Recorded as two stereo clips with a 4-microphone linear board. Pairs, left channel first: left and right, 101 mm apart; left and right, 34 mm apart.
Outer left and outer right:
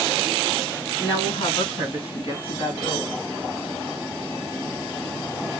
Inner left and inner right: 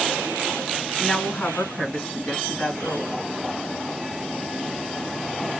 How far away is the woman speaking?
About 3.5 m.